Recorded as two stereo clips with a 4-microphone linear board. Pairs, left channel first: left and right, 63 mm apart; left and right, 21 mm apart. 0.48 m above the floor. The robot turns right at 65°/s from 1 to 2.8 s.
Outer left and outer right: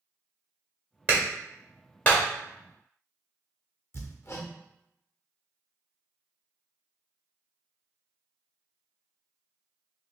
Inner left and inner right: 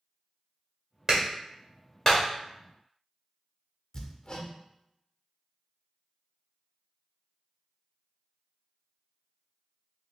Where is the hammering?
45° left (ahead or behind), 0.7 m.